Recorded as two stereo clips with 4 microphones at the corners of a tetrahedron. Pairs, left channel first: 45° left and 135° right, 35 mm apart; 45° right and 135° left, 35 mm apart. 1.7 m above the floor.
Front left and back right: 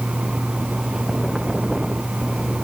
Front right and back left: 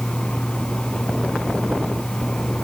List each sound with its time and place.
Only background noise.